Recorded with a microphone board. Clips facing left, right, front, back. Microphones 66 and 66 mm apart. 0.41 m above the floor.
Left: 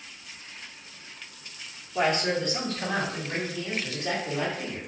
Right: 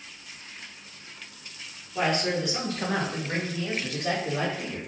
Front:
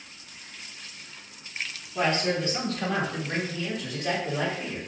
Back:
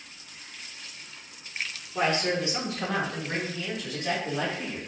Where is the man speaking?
155° left, 0.8 m; by 4.8 s 85° right, 1.6 m.